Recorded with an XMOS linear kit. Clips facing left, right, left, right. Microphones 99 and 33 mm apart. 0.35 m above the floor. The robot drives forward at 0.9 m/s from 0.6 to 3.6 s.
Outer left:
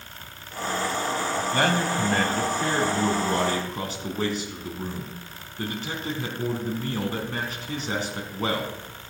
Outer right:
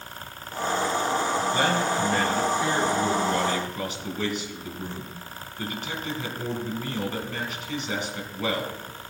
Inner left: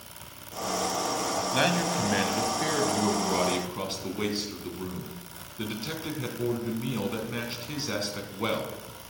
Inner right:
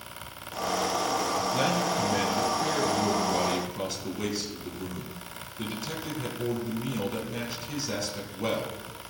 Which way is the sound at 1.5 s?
60° left (ahead or behind).